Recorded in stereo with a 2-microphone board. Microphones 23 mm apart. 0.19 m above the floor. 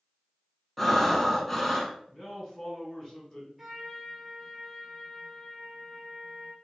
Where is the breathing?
10° left (ahead or behind), 0.5 m.